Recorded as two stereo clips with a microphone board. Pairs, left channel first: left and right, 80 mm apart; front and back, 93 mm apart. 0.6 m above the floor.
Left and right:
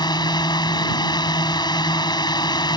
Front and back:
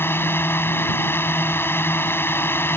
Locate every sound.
0.0 s a drone: 65° left